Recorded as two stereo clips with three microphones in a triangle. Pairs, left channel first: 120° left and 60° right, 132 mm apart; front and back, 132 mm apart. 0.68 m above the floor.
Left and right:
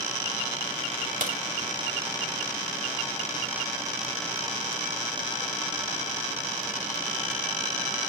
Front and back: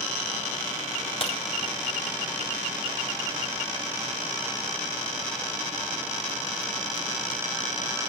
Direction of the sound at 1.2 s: 50° right.